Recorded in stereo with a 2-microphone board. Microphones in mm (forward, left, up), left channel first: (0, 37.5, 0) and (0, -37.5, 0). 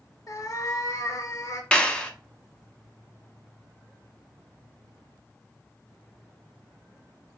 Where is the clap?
15° left (ahead or behind), 0.7 m.